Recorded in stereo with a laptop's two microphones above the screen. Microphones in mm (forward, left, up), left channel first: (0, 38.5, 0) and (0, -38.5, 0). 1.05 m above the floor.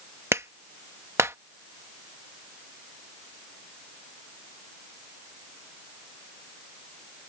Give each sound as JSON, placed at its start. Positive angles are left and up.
{"t": 0.3, "sound": "a clap", "side_deg": -40}